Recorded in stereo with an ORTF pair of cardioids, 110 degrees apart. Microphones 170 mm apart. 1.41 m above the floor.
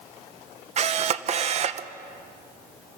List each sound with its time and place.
0.8 s a camera shutter: 40° right, 0.8 m